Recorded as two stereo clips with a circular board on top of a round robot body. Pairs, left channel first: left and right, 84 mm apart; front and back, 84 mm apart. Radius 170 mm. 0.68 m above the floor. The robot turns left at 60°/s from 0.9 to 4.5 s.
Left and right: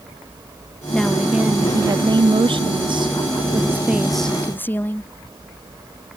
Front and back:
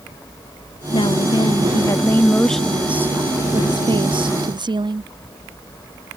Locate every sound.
0.9 s a woman speaking: 10° left; by 5.1 s 160° left